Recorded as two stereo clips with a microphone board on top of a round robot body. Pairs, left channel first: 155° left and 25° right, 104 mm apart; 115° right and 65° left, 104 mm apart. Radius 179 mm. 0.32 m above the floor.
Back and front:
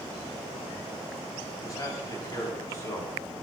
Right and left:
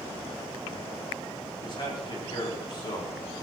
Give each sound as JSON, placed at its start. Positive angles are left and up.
{"t": 1.6, "sound": "a man speaking", "azimuth_deg": -150, "distance_m": 5.0}